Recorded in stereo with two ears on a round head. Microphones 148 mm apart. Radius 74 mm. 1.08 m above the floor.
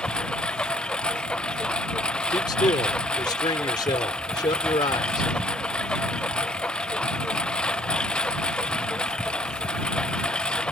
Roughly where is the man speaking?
Left.